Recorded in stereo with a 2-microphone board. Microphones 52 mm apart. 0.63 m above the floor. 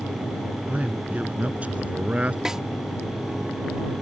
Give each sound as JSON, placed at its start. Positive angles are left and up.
{"t": 0.7, "sound": "a man speaking", "side_deg": -30}
{"t": 2.5, "sound": "a snare drum", "side_deg": -10}